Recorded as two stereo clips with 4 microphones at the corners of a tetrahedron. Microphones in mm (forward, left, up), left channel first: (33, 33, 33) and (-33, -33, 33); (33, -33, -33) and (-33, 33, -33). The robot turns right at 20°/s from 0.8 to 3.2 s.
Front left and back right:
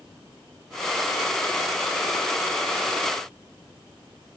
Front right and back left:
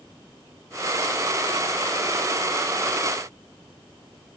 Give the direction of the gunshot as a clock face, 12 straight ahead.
No gunshot in this recording.